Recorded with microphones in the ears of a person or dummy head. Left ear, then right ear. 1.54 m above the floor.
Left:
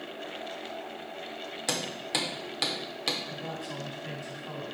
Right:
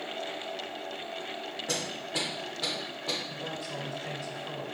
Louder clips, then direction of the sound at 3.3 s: Right 1 dB; 35° right (ahead or behind).